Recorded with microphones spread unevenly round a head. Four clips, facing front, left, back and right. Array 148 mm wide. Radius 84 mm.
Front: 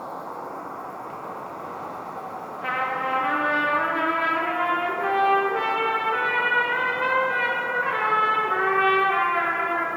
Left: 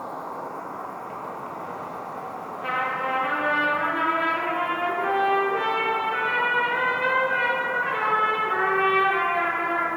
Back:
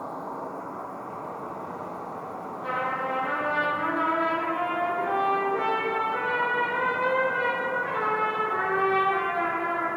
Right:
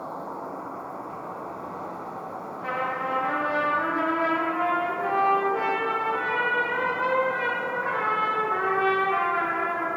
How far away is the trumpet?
About 0.5 m.